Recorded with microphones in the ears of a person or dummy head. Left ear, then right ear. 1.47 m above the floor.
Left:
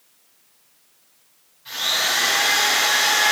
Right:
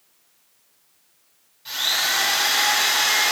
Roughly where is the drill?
Right.